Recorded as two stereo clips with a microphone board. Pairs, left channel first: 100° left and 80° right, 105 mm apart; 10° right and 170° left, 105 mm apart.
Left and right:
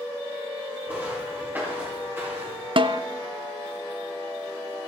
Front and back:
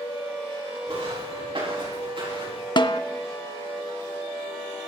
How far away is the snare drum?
About 0.5 m.